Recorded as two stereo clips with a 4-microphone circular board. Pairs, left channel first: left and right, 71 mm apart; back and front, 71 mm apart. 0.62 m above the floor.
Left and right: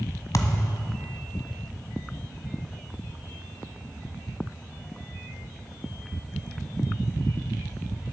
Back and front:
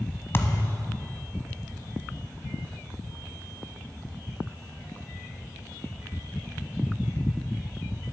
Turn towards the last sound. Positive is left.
turn(degrees=125)